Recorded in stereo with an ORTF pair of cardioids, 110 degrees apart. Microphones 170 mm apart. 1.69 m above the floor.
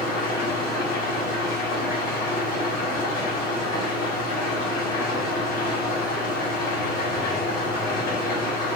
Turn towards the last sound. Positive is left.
turn(degrees=60)